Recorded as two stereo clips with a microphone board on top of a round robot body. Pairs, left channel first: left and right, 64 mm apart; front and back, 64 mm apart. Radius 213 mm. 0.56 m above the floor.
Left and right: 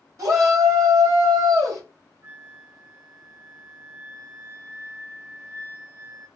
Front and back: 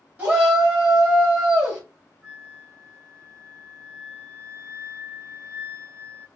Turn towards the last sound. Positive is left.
turn(degrees=-140)